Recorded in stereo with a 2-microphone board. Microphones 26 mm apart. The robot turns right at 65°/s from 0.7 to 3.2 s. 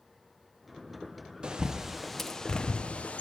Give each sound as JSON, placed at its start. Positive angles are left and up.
{"t": 1.4, "sound": "a bird", "side_deg": -35, "distance_m": 0.8}